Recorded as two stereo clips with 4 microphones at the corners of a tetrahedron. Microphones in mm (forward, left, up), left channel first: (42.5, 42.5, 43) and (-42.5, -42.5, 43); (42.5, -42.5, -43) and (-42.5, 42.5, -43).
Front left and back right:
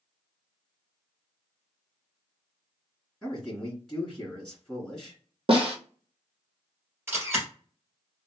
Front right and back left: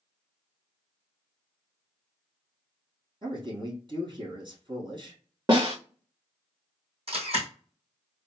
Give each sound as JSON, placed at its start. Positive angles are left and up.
{"t": 3.2, "sound": "a man speaking", "azimuth_deg": 135, "distance_m": 2.0}
{"t": 5.5, "sound": "a snare drum", "azimuth_deg": -175, "distance_m": 1.5}
{"t": 7.1, "sound": "a camera shutter", "azimuth_deg": 160, "distance_m": 2.5}